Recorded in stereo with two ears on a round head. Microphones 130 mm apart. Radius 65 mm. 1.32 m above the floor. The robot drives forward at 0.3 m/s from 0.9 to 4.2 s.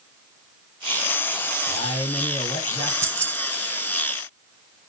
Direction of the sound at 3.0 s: 20° right (ahead or behind).